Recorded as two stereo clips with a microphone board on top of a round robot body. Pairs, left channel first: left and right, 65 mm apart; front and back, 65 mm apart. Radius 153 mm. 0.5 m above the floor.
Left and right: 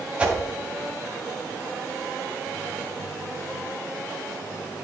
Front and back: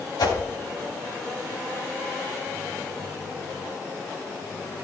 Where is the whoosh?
15° right, 3 m.